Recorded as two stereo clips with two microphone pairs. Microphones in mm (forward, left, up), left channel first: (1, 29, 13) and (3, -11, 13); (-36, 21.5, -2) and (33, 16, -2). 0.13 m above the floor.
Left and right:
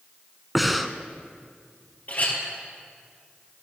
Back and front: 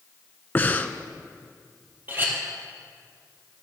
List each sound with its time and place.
0.6 s breathing: 175° right, 0.6 m
2.1 s a clink: 55° left, 2 m